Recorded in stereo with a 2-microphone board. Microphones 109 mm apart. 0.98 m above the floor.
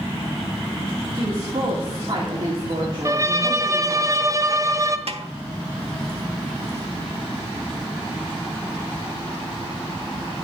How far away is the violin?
About 0.5 m.